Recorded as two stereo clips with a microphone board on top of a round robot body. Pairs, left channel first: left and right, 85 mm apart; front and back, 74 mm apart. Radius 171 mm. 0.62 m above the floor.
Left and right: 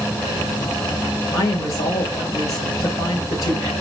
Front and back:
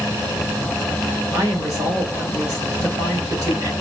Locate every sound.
1.3 s a woman speaking: 135° left, 2.5 m